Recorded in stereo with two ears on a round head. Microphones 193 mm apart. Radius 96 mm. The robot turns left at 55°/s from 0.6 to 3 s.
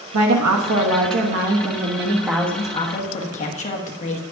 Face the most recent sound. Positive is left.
turn(degrees=145)